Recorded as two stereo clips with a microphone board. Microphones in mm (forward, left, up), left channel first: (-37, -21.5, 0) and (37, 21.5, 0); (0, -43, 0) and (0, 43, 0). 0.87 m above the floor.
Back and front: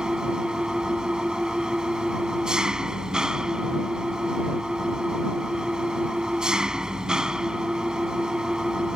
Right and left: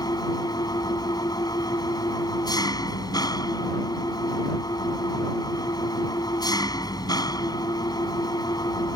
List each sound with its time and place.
0.0 s an engine running: 55° right